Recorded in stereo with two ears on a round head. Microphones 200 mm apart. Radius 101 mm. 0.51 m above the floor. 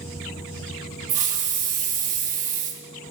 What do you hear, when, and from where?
1.1 s a hiss: 35° right (ahead or behind), 0.8 m